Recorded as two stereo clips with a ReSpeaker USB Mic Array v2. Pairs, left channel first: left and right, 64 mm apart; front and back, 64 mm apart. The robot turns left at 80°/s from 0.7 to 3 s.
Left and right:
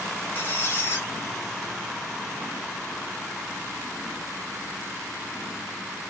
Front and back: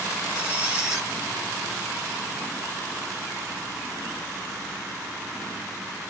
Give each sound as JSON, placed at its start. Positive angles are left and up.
{"t": 0.3, "sound": "a squeak", "azimuth_deg": 115, "distance_m": 1.1}